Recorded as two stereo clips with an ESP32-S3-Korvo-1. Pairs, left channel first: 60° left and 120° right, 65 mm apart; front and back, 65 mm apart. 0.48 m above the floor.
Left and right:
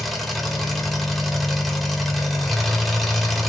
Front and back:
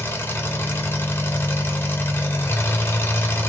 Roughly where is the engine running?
Ahead right.